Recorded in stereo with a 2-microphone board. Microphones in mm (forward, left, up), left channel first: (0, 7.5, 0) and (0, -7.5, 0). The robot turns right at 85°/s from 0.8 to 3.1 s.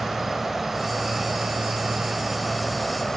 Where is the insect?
160° right; by 3.2 s 35° left.